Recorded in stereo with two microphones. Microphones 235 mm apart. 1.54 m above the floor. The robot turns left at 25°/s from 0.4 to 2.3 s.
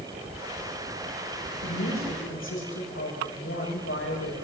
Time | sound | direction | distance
1.6 | a woman speaking | 75° left (ahead or behind) | 9.5 m